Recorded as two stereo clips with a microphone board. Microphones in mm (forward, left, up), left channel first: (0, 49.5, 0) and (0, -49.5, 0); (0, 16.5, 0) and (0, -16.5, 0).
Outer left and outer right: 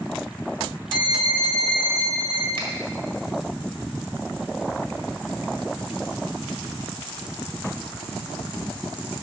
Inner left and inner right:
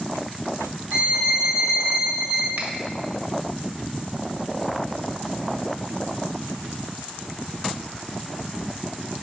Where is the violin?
60° right (ahead or behind), 2 m.